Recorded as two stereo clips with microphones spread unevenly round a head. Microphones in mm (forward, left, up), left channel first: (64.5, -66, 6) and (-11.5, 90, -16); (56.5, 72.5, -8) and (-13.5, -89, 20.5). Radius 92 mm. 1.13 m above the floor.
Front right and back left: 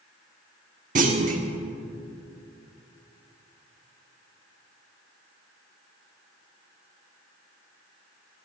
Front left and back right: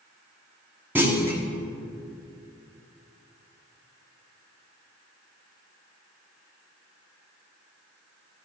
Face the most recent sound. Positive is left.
turn(degrees=170)